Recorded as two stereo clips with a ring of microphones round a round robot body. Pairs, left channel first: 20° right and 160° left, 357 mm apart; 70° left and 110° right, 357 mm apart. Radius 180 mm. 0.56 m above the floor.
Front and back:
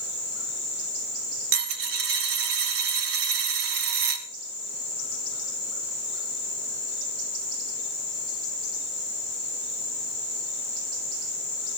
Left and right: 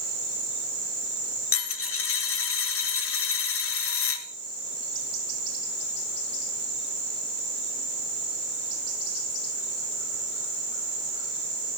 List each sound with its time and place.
1.5 s a dropped coin: 125° left, 1.2 m